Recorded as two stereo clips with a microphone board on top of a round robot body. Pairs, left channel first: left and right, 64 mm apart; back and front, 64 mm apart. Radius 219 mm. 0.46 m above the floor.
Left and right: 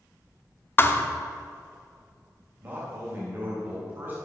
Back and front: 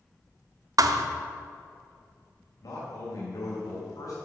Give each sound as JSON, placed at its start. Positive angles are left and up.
{"t": 0.8, "sound": "a thud", "azimuth_deg": 35, "distance_m": 0.6}
{"t": 2.6, "sound": "a man speaking", "azimuth_deg": -150, "distance_m": 3.0}